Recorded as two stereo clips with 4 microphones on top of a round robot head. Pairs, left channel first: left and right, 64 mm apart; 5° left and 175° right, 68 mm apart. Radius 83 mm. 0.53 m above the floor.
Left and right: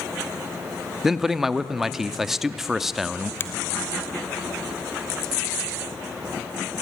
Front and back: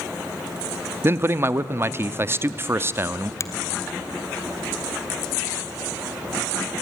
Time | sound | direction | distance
1.0 | a man speaking | 170° right | 0.8 m
3.4 | a finger snap | 40° left | 1.4 m